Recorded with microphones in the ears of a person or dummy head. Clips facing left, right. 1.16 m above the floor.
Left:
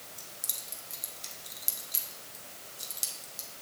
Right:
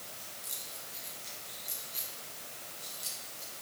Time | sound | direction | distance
0.2 | keys jangling | 80° left | 1.3 m